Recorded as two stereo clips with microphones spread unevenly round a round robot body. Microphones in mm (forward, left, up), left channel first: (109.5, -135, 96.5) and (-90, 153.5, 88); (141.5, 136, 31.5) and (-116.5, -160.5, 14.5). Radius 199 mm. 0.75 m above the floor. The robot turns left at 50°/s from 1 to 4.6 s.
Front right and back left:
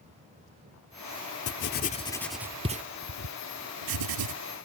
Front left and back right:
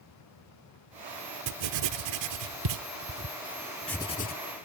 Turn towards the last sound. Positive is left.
turn(degrees=100)